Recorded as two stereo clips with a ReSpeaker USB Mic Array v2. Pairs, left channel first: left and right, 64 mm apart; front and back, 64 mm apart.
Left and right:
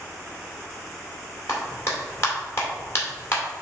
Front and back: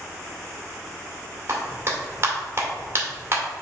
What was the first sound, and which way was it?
A clap, 130° left.